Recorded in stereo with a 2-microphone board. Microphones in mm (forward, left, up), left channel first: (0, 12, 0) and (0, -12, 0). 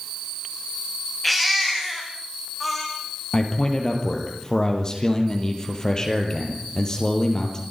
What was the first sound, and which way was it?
A baby crying, 5° left (ahead or behind).